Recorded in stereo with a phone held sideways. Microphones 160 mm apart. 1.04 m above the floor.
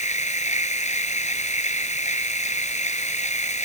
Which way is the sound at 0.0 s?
45° left (ahead or behind).